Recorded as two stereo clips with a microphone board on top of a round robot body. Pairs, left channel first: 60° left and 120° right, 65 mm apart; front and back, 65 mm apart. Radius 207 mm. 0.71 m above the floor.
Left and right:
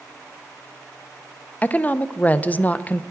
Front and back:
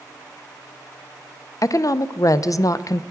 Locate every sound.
1.6 s a woman speaking: straight ahead, 0.5 m